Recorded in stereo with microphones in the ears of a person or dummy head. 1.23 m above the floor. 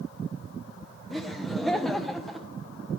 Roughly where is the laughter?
Centre.